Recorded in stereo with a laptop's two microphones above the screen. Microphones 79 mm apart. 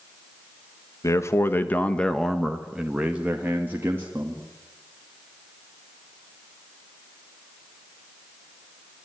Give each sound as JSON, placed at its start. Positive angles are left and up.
{"t": 1.0, "sound": "a man speaking", "side_deg": 45, "distance_m": 1.2}